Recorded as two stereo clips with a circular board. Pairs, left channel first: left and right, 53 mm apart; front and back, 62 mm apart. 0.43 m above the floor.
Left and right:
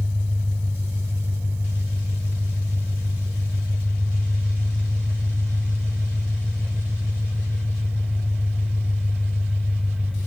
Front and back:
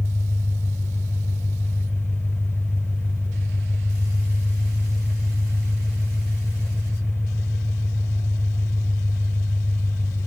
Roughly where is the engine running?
Ahead right.